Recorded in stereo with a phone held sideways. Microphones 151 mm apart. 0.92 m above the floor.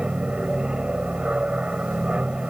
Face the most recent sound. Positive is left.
turn(degrees=-5)  # may be behind; listen again after turning